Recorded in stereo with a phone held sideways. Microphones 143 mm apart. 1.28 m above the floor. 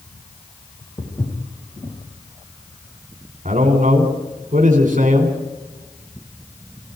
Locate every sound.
1.0 s footsteps: 25° left (ahead or behind), 6 m
3.5 s a man speaking: 60° right (ahead or behind), 4.5 m